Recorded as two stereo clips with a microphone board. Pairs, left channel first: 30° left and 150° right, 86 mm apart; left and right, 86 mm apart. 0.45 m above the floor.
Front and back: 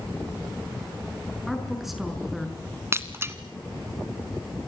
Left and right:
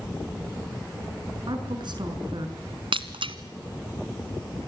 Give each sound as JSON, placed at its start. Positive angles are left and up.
{"t": 1.5, "sound": "a woman speaking", "azimuth_deg": -60, "distance_m": 6.0}
{"t": 2.9, "sound": "breaking glass", "azimuth_deg": -90, "distance_m": 1.7}